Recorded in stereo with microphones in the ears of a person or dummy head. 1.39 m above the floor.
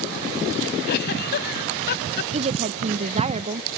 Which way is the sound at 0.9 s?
55° left (ahead or behind).